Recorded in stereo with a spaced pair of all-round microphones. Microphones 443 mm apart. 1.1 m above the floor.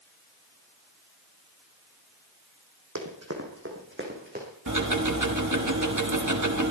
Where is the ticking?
40° right (ahead or behind), 1.3 m.